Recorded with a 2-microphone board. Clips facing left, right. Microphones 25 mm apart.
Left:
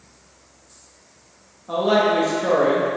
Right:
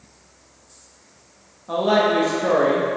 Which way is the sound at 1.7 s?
5° right (ahead or behind).